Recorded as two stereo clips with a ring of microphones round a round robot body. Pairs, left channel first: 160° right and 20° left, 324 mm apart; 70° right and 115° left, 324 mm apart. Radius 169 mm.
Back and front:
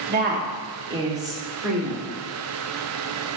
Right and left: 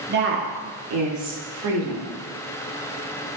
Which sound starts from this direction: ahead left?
A woman speaking, at 0.1 s.